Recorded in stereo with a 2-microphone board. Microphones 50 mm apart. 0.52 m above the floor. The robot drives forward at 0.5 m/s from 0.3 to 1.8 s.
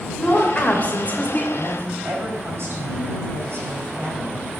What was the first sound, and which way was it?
A woman speaking, 25° left (ahead or behind).